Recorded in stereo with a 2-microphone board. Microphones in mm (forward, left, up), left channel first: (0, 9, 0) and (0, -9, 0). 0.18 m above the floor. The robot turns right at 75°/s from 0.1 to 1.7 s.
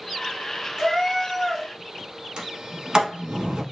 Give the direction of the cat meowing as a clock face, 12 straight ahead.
2 o'clock.